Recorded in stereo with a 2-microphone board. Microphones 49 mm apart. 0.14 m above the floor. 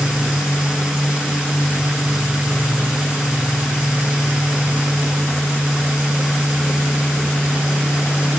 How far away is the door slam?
No door slam in this recording.